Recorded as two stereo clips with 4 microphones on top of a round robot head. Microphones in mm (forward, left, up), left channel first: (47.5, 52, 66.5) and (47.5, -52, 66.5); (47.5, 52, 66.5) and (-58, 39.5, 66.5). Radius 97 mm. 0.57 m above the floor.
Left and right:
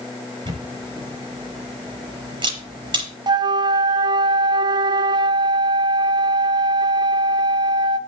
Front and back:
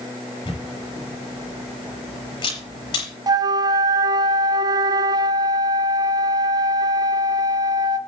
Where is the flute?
130° right, 1.0 m.